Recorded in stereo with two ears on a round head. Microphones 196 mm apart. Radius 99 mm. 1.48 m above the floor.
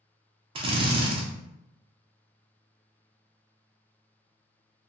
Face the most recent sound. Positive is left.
turn(degrees=-25)  # may be behind; listen again after turning